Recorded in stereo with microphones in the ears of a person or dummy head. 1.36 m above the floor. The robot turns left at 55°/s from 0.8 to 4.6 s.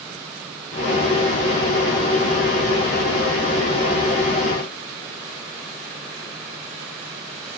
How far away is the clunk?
No clunk in this recording.